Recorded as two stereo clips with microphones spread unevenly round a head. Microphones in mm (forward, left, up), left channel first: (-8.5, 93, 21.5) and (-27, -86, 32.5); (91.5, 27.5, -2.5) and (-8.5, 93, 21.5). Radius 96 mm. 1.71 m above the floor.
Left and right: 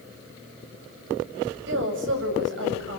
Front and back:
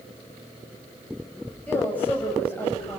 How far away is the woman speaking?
About 8 m.